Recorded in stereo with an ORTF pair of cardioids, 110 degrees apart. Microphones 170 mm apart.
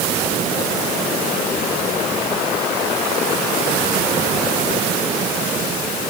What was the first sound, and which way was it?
Only background noise.